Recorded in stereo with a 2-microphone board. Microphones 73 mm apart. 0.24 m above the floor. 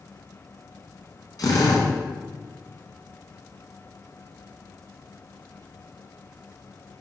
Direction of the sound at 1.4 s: 60° left (ahead or behind).